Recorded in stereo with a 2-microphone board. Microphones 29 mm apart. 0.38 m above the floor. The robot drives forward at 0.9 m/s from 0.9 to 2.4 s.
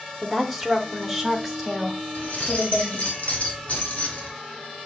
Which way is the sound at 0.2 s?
5° right (ahead or behind).